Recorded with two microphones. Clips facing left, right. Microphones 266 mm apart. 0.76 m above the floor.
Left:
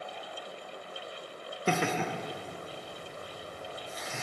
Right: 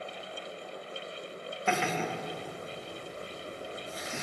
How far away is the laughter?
About 0.5 m.